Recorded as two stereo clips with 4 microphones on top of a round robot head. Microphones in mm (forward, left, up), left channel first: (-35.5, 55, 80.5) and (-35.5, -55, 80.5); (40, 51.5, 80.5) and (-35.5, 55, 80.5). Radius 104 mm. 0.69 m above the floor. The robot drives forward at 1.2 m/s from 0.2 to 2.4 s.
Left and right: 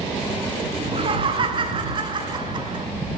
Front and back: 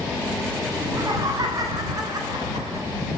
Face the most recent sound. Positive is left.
turn(degrees=-140)